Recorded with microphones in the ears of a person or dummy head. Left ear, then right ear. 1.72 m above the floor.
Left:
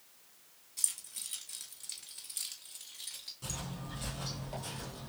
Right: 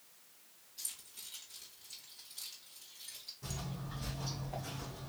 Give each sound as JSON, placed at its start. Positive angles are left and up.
{"t": 0.8, "sound": "keys jangling", "side_deg": 50, "distance_m": 1.6}
{"t": 3.4, "sound": "footsteps", "side_deg": 35, "distance_m": 2.0}